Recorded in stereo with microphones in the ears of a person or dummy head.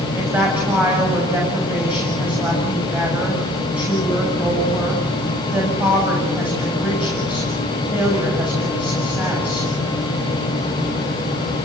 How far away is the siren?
I don't hear a siren.